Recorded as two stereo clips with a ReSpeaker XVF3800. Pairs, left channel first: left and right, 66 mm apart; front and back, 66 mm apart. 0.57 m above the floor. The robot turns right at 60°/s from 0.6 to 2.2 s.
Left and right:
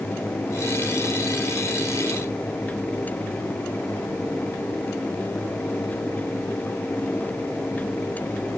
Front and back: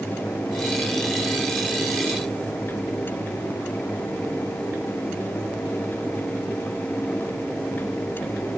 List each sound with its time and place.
Only background noise.